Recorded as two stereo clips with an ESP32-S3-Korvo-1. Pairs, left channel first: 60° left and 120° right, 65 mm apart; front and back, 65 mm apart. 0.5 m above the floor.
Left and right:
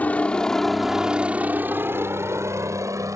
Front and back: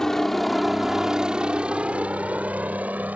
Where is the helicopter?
75° left; by 3.2 s 120° right.